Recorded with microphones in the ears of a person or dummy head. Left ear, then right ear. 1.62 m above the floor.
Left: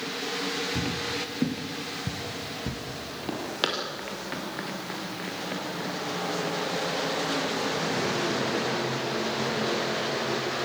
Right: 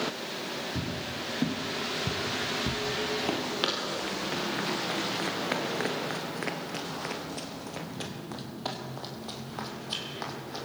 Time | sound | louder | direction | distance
0.8 | footsteps | left 5 dB | 35° left (ahead or behind) | 2.5 m
3.6 | running footsteps | left 4 dB | 10° left (ahead or behind) | 2.5 m